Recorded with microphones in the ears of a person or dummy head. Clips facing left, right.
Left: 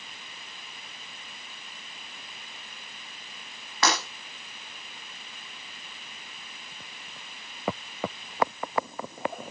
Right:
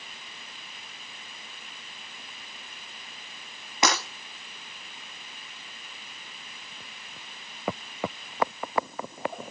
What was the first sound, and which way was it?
Breaking glass, 15° right (ahead or behind).